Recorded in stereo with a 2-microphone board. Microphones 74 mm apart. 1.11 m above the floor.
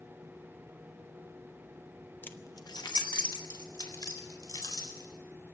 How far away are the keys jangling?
About 0.8 m.